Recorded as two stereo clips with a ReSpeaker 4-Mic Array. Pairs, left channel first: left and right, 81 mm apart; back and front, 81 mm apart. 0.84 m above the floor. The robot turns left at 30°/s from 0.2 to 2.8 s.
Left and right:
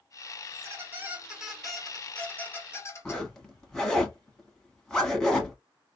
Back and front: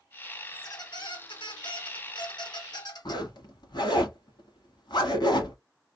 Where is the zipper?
170° left, 1.2 m.